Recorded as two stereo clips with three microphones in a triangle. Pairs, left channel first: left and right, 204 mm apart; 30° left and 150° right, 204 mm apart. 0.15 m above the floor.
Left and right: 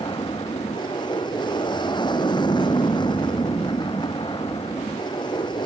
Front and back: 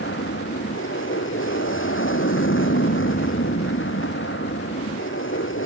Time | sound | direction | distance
0.0 | an aircraft | 20° left | ?